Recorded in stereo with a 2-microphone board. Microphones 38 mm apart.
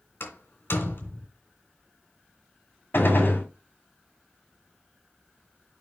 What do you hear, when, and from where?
0.2 s a door slam: 70° left (ahead or behind), 3 m
2.9 s a gunshot: 65° left (ahead or behind), 2 m